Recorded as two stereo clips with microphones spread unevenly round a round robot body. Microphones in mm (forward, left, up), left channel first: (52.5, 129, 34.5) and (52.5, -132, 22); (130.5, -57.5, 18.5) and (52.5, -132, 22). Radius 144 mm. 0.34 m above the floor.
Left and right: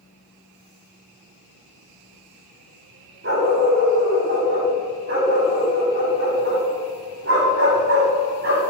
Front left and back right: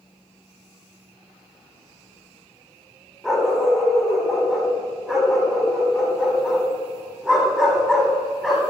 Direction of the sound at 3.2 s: 50° right.